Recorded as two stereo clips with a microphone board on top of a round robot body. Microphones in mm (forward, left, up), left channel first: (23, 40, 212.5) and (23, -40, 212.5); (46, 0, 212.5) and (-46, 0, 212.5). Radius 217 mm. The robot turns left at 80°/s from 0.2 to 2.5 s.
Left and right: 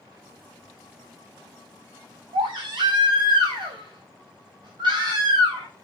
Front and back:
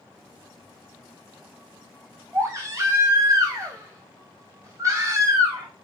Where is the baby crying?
105° right, 0.6 m; by 5.7 s 120° right, 0.6 m.